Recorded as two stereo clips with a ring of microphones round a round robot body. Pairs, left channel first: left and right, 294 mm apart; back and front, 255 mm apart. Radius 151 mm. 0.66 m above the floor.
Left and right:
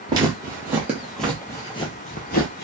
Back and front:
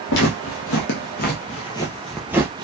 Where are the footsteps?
165° right, 1.1 m; by 2.6 s 60° left, 0.7 m.